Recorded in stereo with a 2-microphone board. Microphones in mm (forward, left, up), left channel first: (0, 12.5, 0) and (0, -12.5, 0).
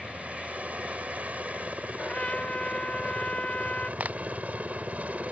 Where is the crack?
65° right (ahead or behind).